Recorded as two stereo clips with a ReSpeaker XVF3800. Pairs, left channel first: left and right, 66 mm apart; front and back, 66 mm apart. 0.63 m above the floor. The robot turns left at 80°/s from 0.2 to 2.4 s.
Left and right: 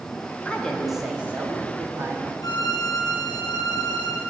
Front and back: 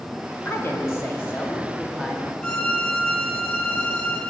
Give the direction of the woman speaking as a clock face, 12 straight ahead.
11 o'clock.